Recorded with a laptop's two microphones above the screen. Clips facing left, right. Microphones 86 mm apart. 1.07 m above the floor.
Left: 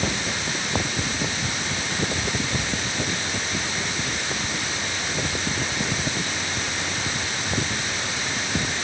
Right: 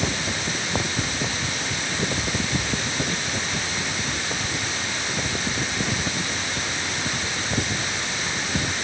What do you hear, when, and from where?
Only background noise.